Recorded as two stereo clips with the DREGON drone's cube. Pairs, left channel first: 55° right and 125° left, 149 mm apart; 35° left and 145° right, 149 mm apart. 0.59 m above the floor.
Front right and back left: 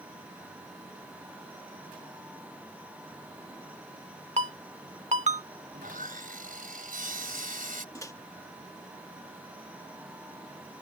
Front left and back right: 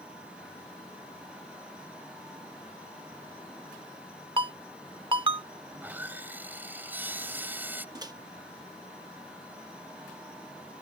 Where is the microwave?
105° right.